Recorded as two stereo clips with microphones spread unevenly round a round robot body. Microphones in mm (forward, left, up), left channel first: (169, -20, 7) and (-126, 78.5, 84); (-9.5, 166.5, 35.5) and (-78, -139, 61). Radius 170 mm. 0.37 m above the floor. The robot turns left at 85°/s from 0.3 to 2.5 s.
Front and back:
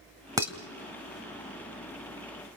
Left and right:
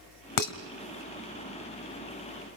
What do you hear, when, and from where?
0.4 s dishes clattering: 80° left, 1.5 m; by 0.5 s 65° left, 1.5 m